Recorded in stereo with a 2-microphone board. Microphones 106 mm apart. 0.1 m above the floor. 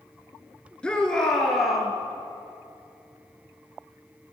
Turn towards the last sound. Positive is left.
turn(degrees=0)  # may be behind; listen again after turning